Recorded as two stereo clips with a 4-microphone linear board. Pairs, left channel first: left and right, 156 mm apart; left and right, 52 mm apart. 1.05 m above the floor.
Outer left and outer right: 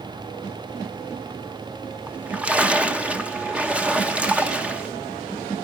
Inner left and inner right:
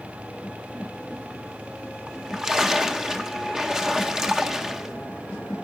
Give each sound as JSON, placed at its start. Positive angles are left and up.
{"t": 2.1, "sound": "a splash", "side_deg": -10, "distance_m": 1.0}